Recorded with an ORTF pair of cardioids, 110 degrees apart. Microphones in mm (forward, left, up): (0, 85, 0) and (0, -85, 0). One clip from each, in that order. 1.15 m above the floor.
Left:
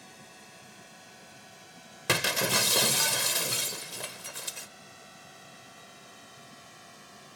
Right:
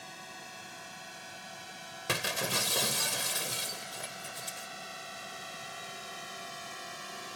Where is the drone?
35° right; by 7.4 s 55° right.